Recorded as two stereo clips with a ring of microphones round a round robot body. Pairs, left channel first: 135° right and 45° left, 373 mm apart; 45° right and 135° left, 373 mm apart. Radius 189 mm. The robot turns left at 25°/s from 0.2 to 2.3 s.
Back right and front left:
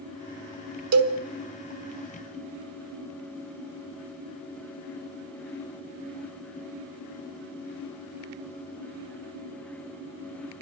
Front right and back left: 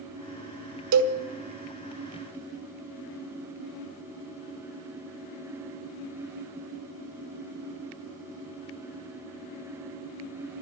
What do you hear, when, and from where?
0.9 s a cowbell: 90° left, 1.3 m; by 1.2 s 85° left, 1.3 m